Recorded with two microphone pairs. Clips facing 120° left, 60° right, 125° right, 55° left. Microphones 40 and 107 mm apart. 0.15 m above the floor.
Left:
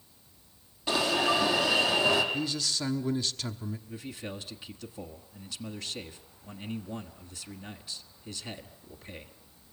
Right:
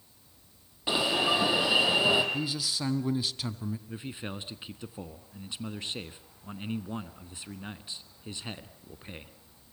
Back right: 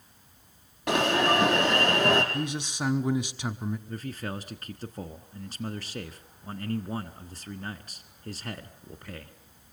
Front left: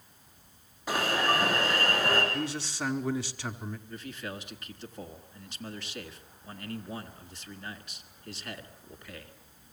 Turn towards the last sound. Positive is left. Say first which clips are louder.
# right 1 dB, back right 4 dB
turn(degrees=-110)